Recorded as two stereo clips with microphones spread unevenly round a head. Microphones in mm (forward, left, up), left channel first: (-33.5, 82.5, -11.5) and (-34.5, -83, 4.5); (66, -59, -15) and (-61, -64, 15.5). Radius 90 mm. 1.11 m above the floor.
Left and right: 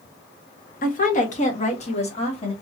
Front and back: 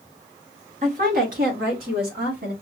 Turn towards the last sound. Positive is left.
turn(degrees=140)